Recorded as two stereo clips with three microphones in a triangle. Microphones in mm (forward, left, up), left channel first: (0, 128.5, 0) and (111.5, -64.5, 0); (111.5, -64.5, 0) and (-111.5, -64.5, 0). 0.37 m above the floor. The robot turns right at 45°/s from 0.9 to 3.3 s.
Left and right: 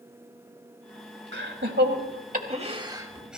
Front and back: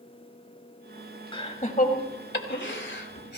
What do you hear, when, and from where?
1.3 s laughter: 65° right, 2.5 m; by 3.4 s 25° left, 2.5 m